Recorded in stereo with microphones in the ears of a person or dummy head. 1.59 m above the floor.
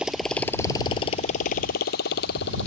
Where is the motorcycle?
5° right (ahead or behind); by 2.7 s 70° left (ahead or behind).